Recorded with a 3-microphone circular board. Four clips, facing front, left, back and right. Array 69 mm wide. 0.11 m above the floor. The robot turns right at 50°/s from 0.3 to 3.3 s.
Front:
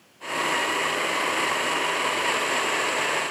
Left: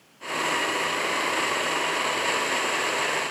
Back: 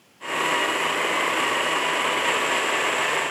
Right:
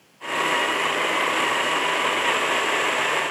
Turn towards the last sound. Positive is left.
No sound to turn to.